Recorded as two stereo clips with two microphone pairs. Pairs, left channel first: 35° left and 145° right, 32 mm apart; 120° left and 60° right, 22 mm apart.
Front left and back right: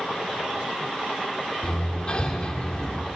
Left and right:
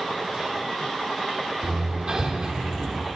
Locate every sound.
1.6 s hammering: 20° right, 3 m